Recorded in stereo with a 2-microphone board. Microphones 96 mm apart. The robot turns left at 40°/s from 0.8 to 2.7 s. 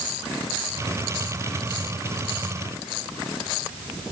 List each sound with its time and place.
Only background noise.